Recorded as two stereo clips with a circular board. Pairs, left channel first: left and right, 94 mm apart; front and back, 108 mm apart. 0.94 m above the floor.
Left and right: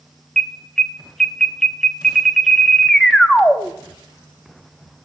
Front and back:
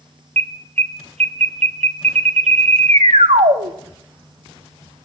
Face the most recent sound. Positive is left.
turn(degrees=175)